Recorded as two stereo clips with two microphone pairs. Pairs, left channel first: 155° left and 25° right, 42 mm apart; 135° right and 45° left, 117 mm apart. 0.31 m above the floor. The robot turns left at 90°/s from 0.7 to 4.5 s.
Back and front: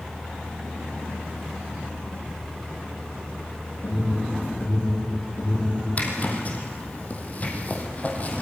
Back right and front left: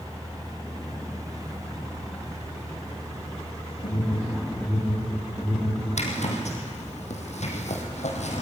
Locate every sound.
3.8 s an alarm: 175° right, 7 m; by 5.8 s 125° left, 7 m
6.0 s a zipper: 155° right, 3.5 m